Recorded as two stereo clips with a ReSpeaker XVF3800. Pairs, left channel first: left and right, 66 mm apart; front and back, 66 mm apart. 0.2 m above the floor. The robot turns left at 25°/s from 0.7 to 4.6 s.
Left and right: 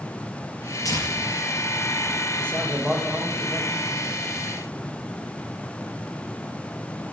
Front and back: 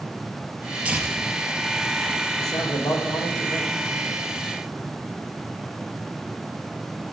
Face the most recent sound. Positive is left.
turn(degrees=-40)